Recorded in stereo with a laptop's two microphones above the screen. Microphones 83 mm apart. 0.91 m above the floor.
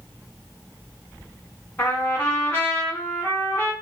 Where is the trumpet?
20° left (ahead or behind), 1.0 m.